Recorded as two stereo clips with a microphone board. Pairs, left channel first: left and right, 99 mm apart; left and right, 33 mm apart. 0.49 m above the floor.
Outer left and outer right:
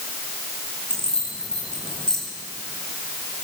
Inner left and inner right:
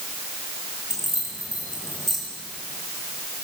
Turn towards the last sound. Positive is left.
turn(degrees=10)  # may be behind; listen again after turning